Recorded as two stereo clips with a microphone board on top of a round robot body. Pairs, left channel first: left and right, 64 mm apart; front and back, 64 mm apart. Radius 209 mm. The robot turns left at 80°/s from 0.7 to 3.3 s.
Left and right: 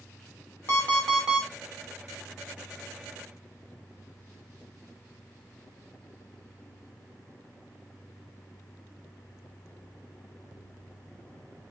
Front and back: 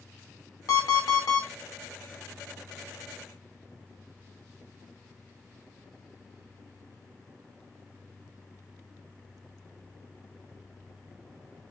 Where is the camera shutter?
I don't hear a camera shutter.